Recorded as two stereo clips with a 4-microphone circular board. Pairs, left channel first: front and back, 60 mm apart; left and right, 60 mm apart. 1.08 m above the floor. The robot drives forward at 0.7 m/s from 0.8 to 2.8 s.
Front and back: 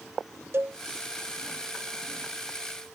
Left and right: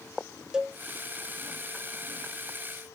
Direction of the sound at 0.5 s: 160° right.